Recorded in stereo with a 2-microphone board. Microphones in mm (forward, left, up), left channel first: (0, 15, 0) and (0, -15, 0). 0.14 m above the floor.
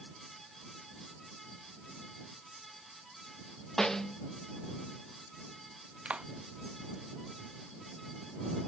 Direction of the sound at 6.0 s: 50° right (ahead or behind).